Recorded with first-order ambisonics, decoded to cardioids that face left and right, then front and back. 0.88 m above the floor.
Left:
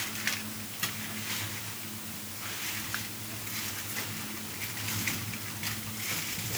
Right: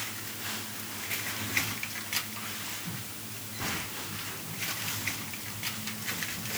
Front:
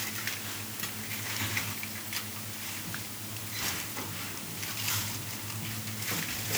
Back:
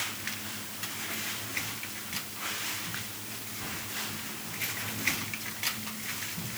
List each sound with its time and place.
Only background noise.